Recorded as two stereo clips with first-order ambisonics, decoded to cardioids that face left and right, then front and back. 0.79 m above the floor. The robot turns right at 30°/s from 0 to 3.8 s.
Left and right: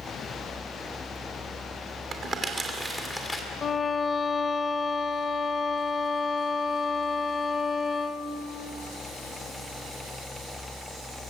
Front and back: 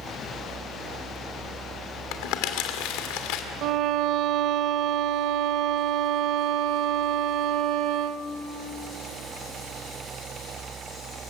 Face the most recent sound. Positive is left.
turn(degrees=160)